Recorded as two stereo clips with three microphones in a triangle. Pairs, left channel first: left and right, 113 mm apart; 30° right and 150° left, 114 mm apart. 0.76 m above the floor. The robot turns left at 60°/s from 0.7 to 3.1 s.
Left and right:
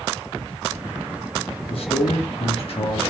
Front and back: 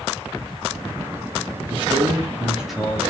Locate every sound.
1.7 s a man speaking: 120° left, 1.0 m; by 3.0 s 45° left, 1.0 m